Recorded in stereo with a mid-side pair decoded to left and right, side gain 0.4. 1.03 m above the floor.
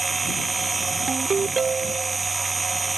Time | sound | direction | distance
0.0 | a machine running | 30° right | ?
1.1 | a ringtone | 45° right | ?